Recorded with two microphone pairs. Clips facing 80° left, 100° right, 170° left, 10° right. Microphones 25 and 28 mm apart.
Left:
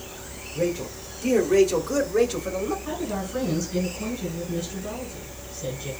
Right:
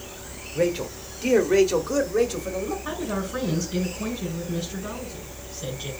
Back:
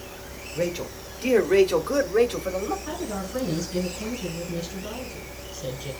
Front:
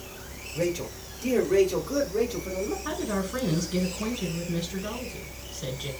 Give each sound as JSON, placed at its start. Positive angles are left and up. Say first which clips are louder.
{"t": 0.6, "sound": "a man speaking", "louder": "right 2 dB, back 1 dB", "azimuth_deg": -120, "distance_m": 1.6}
{"t": 2.9, "sound": "a woman speaking", "louder": "right 1 dB, front 2 dB", "azimuth_deg": -45, "distance_m": 4.5}